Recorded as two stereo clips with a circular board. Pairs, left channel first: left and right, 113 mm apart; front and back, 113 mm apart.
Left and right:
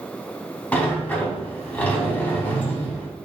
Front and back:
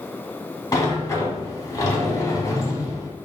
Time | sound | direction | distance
0.7 | a sliding door | 25° left | 0.6 m